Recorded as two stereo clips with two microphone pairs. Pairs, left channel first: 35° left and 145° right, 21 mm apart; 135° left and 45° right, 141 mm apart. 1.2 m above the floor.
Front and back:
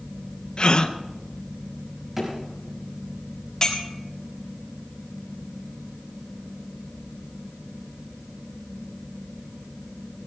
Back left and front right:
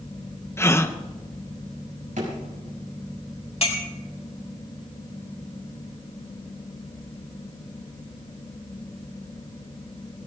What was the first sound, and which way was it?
A gasp, 65° left.